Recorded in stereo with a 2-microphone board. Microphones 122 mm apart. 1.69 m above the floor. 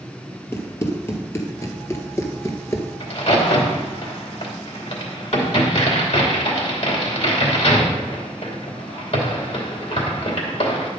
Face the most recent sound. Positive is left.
turn(degrees=60)  # may be behind; listen again after turning